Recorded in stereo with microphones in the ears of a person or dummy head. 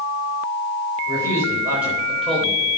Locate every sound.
1.1 s a man speaking: 25° right (ahead or behind), 4 m; by 2.7 s 10° left (ahead or behind), 4 m